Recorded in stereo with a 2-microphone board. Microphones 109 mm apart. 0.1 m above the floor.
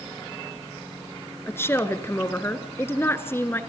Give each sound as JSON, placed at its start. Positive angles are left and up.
{"t": 1.5, "sound": "a woman speaking", "side_deg": 20, "distance_m": 1.2}